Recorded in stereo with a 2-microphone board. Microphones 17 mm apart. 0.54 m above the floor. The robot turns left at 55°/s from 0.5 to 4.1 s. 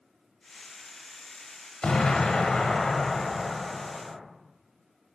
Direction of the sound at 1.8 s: 105° left.